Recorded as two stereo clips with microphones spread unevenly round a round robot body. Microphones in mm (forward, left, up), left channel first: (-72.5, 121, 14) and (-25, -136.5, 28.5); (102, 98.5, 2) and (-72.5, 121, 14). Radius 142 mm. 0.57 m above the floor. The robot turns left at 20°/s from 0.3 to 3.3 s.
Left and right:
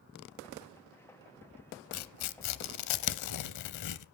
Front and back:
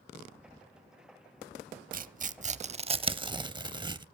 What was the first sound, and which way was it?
Tearing paper, 135° left.